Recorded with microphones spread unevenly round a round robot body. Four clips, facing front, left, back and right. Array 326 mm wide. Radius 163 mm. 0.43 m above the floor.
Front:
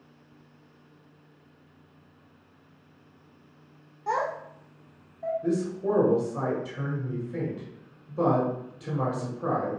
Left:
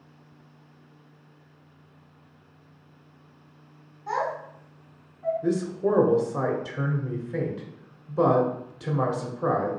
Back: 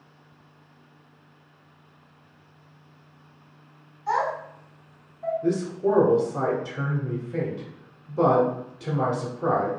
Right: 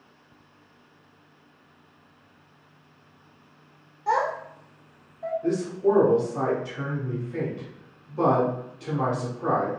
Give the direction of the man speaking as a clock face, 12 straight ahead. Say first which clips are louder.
Right 4 dB, back 4 dB; 8 o'clock.